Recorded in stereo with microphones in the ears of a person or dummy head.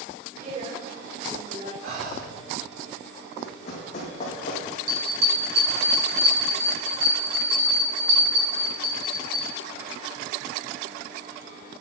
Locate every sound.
0.4 s a woman speaking: 45° right (ahead or behind), 5 m
1.8 s breathing: 50° right (ahead or behind), 2 m
3.4 s running footsteps: 40° left (ahead or behind), 4 m
4.9 s a bell: 55° right (ahead or behind), 4 m